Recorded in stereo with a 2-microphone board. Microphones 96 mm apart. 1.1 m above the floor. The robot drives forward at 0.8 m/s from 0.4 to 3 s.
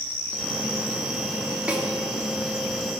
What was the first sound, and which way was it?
A snare drum, 15° right (ahead or behind).